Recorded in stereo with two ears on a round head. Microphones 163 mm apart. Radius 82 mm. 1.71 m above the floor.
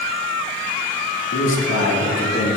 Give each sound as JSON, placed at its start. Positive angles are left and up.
{"t": 1.3, "sound": "a man speaking", "side_deg": 75, "distance_m": 2.0}